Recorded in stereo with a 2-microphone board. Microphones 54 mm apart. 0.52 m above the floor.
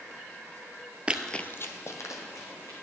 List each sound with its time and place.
1.1 s running footsteps: 25° right (ahead or behind), 0.5 m; by 2.8 s 75° left (ahead or behind), 2 m